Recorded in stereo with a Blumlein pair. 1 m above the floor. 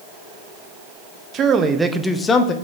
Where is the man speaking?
30° right, 0.8 m; by 2.5 s 35° left, 0.7 m.